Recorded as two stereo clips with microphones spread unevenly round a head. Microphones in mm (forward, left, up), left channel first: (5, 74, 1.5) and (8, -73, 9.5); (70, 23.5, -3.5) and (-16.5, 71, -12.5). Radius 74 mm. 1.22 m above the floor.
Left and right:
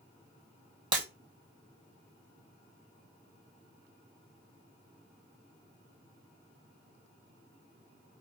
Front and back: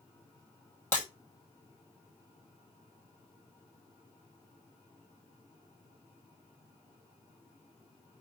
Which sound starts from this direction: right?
Breaking glass, at 0.9 s.